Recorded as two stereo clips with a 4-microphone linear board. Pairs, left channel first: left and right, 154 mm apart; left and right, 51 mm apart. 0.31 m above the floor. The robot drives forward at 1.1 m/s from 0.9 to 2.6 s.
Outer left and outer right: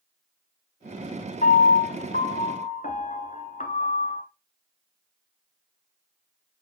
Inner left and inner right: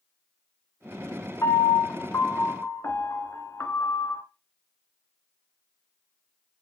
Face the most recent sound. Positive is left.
turn(degrees=60)  # may be behind; listen again after turning